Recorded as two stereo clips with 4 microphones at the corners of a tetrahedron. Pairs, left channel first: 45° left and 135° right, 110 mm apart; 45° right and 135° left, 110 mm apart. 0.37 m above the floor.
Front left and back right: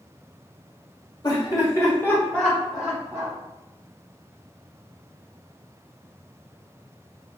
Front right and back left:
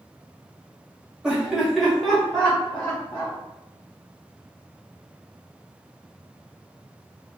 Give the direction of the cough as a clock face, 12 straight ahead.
I don't hear a cough.